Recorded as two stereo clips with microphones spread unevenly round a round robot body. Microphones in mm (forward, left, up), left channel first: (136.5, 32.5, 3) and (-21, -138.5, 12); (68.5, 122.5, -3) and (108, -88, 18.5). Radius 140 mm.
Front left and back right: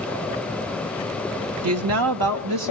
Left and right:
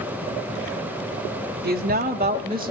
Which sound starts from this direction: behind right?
A woman speaking, at 1.6 s.